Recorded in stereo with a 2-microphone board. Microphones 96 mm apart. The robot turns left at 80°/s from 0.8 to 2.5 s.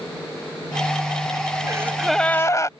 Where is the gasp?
145° right; by 2.7 s 150° left.